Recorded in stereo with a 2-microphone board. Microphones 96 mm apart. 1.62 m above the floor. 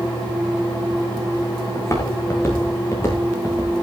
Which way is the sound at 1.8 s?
30° left (ahead or behind).